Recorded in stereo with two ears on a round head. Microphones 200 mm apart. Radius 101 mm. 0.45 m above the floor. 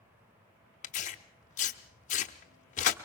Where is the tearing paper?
35° left (ahead or behind), 0.9 m.